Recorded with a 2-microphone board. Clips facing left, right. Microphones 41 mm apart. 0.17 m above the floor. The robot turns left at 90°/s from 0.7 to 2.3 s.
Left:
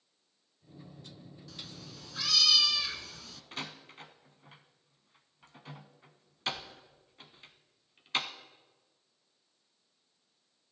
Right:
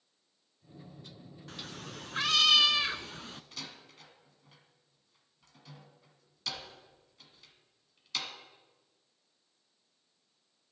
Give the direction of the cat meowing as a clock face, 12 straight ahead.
2 o'clock.